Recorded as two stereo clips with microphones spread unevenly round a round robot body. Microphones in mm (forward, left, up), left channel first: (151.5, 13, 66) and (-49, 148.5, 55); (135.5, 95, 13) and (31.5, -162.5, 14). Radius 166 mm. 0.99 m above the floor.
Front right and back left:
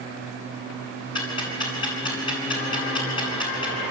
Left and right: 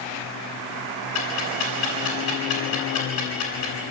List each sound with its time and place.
1.1 s ticking: 35° left, 9.5 m